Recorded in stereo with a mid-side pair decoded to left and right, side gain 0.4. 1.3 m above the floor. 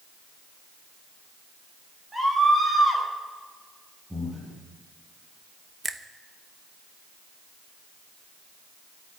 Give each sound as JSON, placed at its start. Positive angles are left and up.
{"t": 2.1, "sound": "a scream", "azimuth_deg": -20, "distance_m": 5.0}
{"t": 4.1, "sound": "breathing", "azimuth_deg": -15, "distance_m": 6.0}
{"t": 5.8, "sound": "a finger snap", "azimuth_deg": -25, "distance_m": 1.0}